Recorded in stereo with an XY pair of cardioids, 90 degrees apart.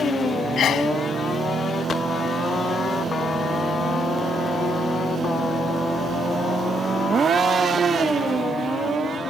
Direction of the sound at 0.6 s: 70° left.